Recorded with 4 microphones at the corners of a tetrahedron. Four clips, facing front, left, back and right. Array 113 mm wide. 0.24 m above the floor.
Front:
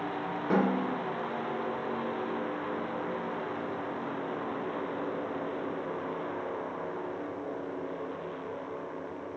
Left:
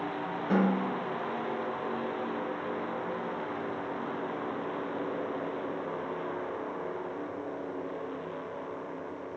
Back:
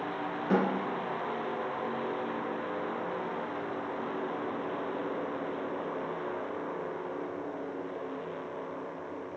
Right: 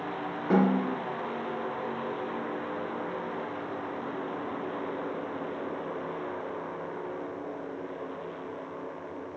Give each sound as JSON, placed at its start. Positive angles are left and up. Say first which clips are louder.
{"t": 0.5, "sound": "a snare drum", "louder": "right 3 dB, front 1 dB", "azimuth_deg": -5, "distance_m": 1.7}